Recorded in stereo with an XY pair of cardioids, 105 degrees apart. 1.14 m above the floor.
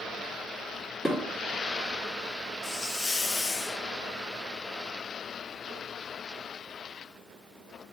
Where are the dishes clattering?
20° left, 1.5 m.